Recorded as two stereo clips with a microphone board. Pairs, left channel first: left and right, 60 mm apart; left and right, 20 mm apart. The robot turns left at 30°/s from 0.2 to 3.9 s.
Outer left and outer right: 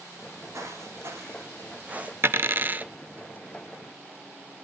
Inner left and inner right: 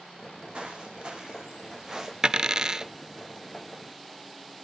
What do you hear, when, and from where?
0.5 s footsteps: 55° right (ahead or behind), 4 m; by 2.1 s 25° right (ahead or behind), 2 m
2.2 s a dropped coin: 40° right (ahead or behind), 0.5 m; by 2.9 s 30° right (ahead or behind), 0.5 m